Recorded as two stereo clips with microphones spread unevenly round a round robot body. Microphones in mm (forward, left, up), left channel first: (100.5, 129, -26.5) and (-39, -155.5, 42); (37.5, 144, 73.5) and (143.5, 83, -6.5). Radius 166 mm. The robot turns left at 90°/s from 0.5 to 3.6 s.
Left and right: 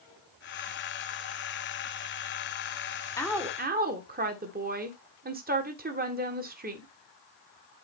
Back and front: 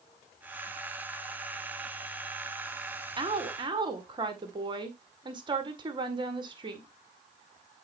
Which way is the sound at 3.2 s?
10° right.